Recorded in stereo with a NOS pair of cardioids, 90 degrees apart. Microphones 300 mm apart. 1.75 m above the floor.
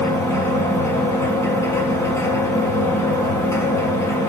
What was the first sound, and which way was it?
A machine running, 10° left.